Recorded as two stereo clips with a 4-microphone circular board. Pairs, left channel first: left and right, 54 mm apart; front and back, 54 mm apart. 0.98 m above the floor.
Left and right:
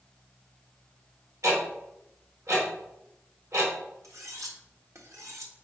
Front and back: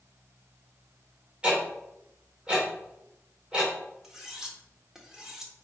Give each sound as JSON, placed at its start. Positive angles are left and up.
{"t": 1.4, "sound": "ticking", "azimuth_deg": -110, "distance_m": 3.5}
{"t": 4.0, "sound": "cutlery clinking", "azimuth_deg": -100, "distance_m": 1.6}